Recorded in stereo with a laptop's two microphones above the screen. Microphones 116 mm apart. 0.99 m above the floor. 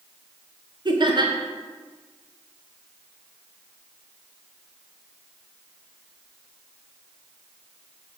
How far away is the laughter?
About 1.0 m.